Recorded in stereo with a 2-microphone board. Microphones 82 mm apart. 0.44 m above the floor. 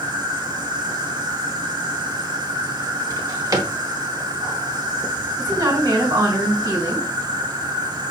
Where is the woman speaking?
50° right (ahead or behind), 1.9 m.